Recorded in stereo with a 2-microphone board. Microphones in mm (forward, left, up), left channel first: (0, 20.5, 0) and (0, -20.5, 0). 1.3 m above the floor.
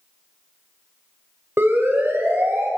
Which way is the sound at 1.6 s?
70° right (ahead or behind).